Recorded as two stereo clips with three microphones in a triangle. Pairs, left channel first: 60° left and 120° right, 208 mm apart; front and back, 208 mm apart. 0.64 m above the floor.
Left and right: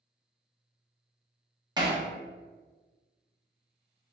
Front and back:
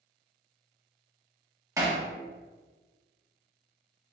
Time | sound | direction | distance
1.8 | hammering | 135° right | 0.8 m